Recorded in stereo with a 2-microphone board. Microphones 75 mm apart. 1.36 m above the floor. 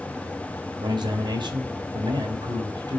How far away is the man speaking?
About 3.5 m.